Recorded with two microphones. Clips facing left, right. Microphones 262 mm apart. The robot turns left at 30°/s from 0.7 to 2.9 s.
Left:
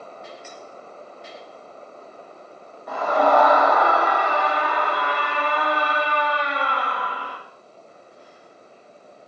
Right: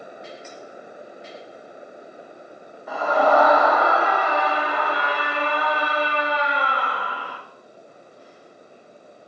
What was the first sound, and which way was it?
A scream, 5° right (ahead or behind).